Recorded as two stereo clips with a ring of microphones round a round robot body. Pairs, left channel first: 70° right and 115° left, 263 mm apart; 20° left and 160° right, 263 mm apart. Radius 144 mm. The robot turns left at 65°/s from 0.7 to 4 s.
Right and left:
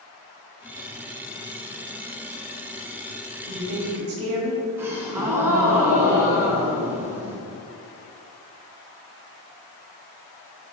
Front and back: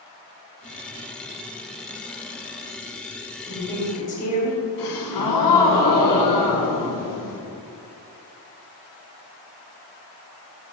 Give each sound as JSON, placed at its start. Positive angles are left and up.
{"t": 3.5, "sound": "a woman speaking", "azimuth_deg": 110, "distance_m": 1.7}
{"t": 4.8, "sound": "a gasp", "azimuth_deg": 30, "distance_m": 1.3}